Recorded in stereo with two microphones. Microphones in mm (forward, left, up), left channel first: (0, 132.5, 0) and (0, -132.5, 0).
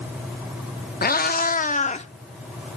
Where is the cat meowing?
35° left (ahead or behind), 0.5 m; by 2.1 s 25° left (ahead or behind), 0.8 m.